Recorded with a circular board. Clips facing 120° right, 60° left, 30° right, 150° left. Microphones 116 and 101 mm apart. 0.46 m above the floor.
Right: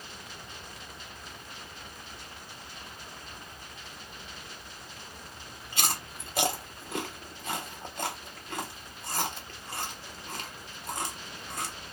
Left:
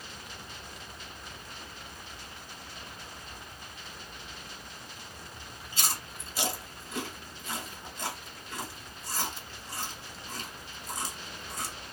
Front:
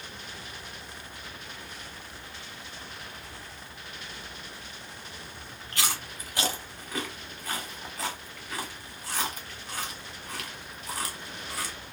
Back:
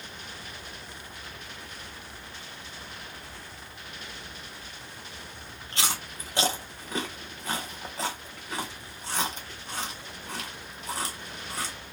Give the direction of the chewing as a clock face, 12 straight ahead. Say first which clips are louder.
Right 3 dB, back 1 dB; 5 o'clock.